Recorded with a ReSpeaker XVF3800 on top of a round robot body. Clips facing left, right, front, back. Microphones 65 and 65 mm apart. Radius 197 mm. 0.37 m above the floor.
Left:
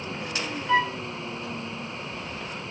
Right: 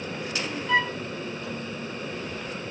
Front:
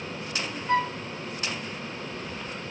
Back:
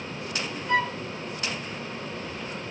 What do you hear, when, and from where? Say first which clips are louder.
0.7 s a flute: left 1 dB, even; 25° left, 1.5 m